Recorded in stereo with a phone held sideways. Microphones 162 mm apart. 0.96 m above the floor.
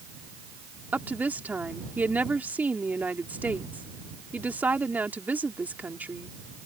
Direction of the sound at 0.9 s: 10° right (ahead or behind).